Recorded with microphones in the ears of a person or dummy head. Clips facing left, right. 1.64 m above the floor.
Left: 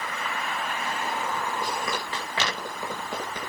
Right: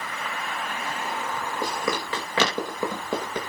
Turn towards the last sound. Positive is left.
turn(degrees=-80)